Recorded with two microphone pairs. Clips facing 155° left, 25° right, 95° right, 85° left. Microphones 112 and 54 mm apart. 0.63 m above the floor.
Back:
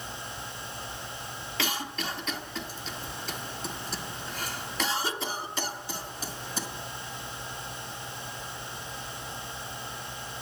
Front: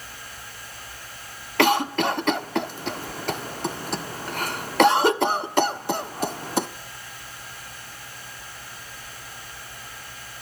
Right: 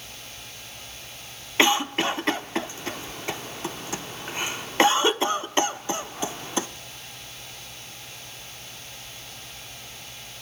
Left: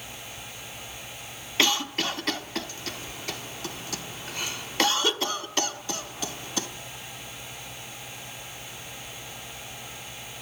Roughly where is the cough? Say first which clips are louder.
Front 14 dB, right 4 dB; ahead right.